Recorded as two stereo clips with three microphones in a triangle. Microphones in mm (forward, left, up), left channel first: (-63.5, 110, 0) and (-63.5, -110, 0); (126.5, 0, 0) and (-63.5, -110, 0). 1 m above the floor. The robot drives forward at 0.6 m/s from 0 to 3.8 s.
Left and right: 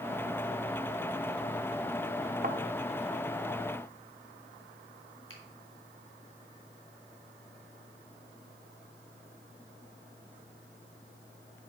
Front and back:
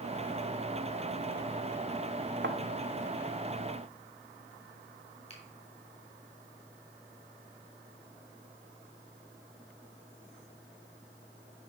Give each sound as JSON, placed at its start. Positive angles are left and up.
{"t": 2.4, "sound": "a thud", "azimuth_deg": -130, "distance_m": 0.9}
{"t": 5.3, "sound": "a finger snap", "azimuth_deg": 90, "distance_m": 3.0}